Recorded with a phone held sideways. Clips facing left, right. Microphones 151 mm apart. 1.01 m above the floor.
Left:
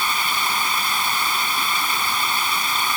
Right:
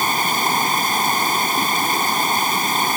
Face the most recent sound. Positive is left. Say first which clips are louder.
# right 5 dB
turn(degrees=-45)  # may be behind; listen again after turning